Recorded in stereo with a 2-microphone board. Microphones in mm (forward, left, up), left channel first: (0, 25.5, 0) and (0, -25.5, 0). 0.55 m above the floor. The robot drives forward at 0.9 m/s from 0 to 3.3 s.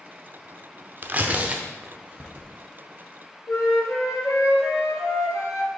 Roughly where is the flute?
Left.